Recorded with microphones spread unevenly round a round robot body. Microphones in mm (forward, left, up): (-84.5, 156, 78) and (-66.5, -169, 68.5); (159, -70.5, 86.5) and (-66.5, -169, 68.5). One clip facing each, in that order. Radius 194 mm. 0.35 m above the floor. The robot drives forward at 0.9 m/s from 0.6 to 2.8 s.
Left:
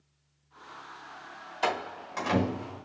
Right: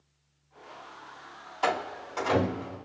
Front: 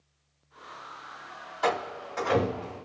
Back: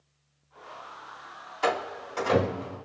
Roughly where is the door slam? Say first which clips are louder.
Right 2 dB, even; behind left.